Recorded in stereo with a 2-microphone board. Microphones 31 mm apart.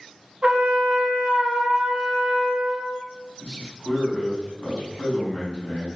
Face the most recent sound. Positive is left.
turn(degrees=35)  # may be behind; listen again after turning